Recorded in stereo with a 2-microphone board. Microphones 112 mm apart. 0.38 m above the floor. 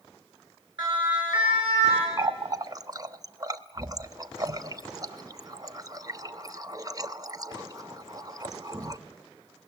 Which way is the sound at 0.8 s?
45° right (ahead or behind).